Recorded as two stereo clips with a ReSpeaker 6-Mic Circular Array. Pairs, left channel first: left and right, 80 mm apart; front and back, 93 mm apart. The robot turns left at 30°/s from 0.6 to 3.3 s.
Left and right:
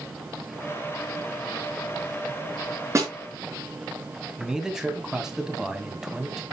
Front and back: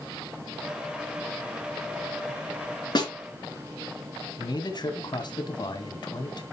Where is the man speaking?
10° right, 1.9 m.